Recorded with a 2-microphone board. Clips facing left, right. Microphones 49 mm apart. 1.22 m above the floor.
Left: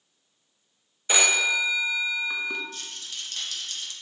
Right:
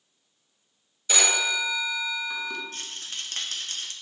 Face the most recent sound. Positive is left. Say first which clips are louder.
# right 2 dB
turn(degrees=-40)  # may be behind; listen again after turning